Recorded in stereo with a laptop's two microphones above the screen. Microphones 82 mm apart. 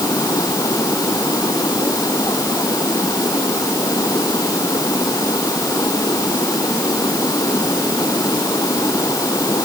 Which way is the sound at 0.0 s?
45° left (ahead or behind).